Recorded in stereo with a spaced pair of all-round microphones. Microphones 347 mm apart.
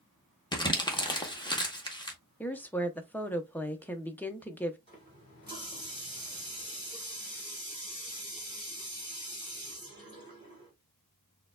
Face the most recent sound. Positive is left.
turn(degrees=-30)  # may be behind; listen again after turning